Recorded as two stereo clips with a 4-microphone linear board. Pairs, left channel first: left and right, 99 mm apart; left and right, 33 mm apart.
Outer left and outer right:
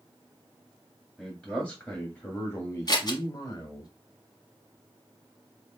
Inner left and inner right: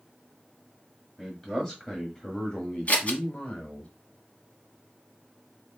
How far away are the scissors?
About 1.0 m.